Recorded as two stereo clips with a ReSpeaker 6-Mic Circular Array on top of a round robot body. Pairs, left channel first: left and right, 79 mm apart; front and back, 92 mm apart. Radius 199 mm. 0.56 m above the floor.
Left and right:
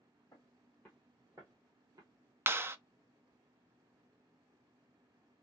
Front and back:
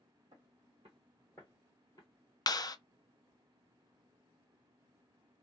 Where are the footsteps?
145° left, 0.6 m; by 2.1 s 50° right, 0.8 m.